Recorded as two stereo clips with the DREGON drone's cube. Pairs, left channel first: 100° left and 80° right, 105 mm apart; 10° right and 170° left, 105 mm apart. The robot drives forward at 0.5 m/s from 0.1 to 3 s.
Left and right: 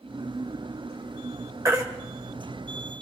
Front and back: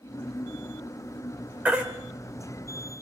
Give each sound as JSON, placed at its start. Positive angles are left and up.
{"t": 1.6, "sound": "a baby crying", "azimuth_deg": -120, "distance_m": 1.7}